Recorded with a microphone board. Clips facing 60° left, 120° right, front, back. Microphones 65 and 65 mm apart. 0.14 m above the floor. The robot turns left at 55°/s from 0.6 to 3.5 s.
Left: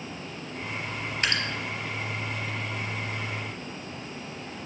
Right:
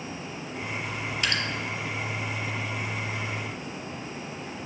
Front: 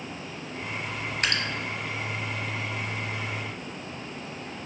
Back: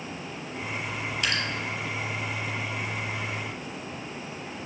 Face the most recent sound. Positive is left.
turn(degrees=-105)